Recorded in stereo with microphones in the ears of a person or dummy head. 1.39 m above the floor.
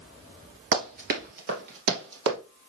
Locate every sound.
0.7 s running footsteps: 25° right (ahead or behind), 1.6 m; by 2.4 s 65° right (ahead or behind), 3 m